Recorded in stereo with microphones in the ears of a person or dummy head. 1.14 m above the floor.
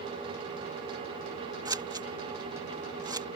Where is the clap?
No clap in this recording.